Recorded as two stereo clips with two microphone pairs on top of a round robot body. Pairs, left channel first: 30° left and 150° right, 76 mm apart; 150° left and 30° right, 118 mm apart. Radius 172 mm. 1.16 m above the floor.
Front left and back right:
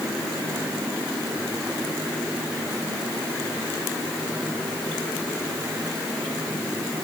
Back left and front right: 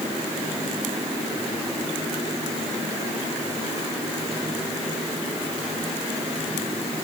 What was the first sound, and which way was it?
Only background noise.